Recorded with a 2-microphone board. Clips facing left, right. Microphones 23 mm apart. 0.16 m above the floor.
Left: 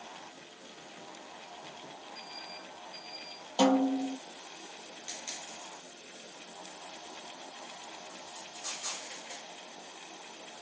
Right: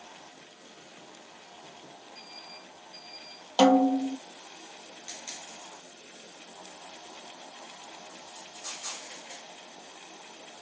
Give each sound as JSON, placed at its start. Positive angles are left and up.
{"t": 3.6, "sound": "a snare drum", "side_deg": -40, "distance_m": 0.8}